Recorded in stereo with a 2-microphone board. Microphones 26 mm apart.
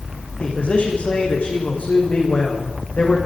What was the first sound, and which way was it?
A man speaking, 55° left (ahead or behind).